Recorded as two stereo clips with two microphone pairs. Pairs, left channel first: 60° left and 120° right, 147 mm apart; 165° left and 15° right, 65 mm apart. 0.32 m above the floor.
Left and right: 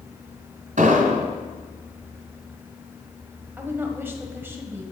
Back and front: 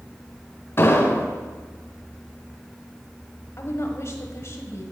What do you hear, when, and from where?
0.8 s an explosion: 145° right, 1.8 m
3.6 s a woman speaking: 170° left, 1.4 m